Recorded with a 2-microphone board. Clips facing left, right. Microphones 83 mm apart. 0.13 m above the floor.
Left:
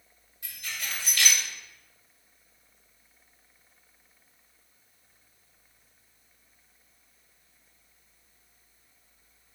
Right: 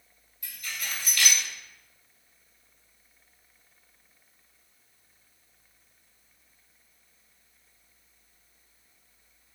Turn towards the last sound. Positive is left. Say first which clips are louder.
# even
turn(degrees=30)  # may be behind; listen again after turning